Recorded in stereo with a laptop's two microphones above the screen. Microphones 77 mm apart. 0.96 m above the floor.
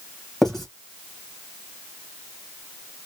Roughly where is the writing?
Centre.